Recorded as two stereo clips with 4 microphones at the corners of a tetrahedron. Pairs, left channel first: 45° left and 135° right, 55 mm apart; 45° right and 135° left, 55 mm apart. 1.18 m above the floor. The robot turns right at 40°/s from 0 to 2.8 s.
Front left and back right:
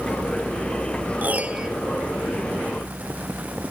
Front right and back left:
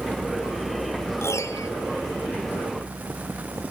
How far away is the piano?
About 1.5 m.